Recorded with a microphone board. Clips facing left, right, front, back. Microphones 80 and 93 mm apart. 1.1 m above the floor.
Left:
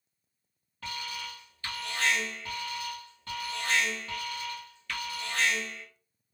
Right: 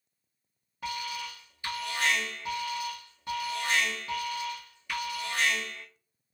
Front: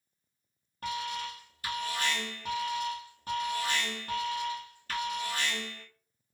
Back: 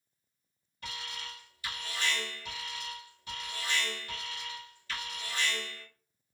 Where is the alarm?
20° right, 1.1 m.